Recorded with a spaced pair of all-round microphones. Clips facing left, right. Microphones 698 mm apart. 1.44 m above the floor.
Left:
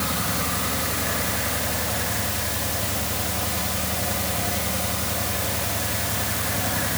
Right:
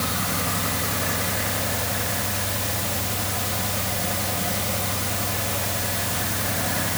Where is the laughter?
I don't hear laughter.